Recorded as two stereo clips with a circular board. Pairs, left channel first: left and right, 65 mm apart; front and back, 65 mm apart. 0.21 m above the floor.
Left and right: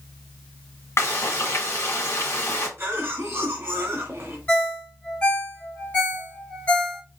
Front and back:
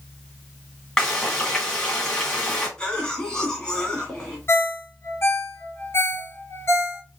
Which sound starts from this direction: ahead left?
A ringtone, at 4.5 s.